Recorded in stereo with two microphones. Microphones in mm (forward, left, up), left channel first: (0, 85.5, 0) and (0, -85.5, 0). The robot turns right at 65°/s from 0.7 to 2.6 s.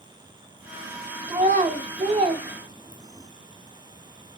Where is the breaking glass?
No breaking glass in this recording.